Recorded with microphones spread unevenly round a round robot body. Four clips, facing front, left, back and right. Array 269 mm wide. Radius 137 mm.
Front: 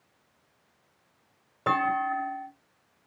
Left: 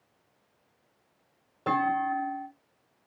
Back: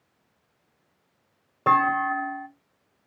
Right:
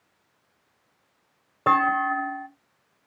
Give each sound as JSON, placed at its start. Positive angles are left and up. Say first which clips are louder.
{"t": 1.7, "sound": "a clunk", "louder": "right 5 dB, back 5 dB", "azimuth_deg": -125, "distance_m": 1.6}